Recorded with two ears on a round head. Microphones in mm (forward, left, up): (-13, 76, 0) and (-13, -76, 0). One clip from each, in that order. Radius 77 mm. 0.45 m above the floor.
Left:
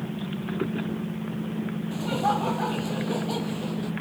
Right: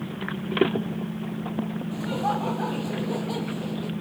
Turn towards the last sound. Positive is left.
turn(degrees=10)  # may be behind; listen again after turning